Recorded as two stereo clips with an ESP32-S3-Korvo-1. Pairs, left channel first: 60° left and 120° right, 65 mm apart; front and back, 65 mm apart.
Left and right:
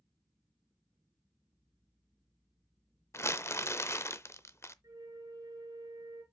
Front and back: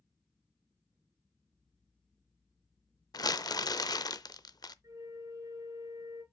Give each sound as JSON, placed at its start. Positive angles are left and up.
{"t": 3.1, "sound": "crumpling", "azimuth_deg": 15, "distance_m": 0.5}
{"t": 4.8, "sound": "a flute", "azimuth_deg": -150, "distance_m": 2.5}